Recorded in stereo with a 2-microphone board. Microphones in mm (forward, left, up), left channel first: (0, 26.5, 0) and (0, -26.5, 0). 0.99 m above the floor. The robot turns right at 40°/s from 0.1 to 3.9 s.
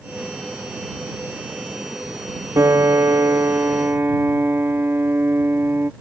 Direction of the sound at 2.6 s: 100° right.